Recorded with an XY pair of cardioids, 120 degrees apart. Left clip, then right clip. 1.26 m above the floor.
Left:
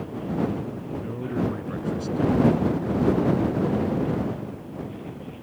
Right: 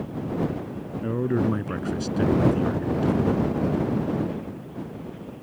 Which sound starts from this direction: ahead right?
A man speaking, at 1.0 s.